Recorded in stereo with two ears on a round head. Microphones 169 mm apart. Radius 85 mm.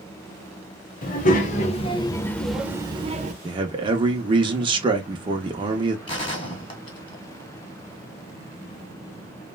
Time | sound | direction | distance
1.0 | a child speaking | 50° left (ahead or behind) | 1.1 m
3.4 | a man speaking | 25° right (ahead or behind) | 0.7 m
6.1 | a gunshot | 25° left (ahead or behind) | 1.2 m